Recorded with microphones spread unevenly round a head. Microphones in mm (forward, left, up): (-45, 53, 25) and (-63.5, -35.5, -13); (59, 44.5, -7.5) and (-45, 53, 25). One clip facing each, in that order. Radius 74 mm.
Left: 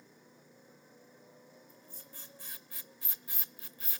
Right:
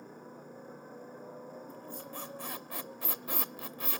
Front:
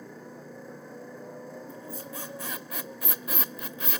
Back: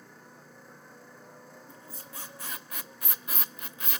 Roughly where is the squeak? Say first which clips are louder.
Right 13 dB, front 8 dB; ahead right.